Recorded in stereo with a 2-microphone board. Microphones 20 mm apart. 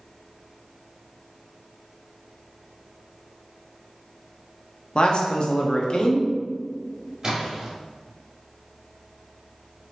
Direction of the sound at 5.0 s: 50° left (ahead or behind).